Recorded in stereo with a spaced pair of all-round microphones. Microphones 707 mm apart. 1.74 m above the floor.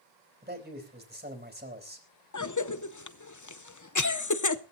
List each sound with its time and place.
0.4 s a man speaking: 15° right (ahead or behind), 3.5 m
2.3 s a cough: 25° left (ahead or behind), 0.7 m